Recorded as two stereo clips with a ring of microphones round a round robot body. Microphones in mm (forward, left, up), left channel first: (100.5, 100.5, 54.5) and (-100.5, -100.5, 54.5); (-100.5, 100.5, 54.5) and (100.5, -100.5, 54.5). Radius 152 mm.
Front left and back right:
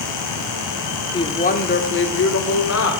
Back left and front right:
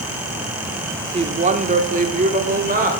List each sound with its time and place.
1.1 s a woman speaking: 10° right, 0.8 m; by 2.9 s 15° left, 1.7 m